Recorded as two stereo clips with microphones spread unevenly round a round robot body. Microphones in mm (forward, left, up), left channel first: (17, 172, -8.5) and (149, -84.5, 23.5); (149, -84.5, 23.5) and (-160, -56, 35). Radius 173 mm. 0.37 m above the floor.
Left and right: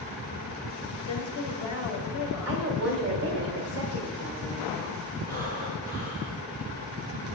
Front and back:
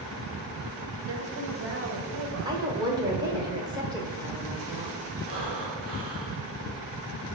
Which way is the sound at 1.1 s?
135° left.